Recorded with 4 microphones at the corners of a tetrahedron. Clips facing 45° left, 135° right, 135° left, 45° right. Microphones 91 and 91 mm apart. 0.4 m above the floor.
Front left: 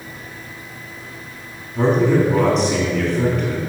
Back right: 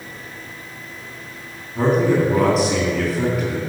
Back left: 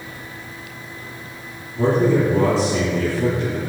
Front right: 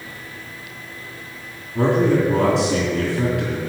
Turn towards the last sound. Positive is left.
turn(degrees=-45)